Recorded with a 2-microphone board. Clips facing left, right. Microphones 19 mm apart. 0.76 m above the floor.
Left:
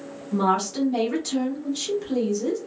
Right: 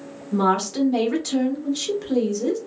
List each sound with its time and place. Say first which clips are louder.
0.3 s a woman speaking: right 2 dB; 20° right (ahead or behind), 0.9 m